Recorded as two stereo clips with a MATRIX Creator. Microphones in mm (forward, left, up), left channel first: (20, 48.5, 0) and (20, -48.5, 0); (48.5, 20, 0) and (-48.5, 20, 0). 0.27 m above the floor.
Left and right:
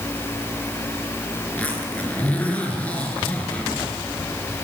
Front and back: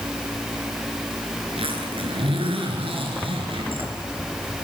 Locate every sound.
1.4 s a zipper: 165° left, 4 m